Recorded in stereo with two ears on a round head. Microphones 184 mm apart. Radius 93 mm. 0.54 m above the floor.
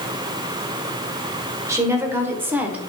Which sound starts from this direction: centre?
A woman speaking, at 1.7 s.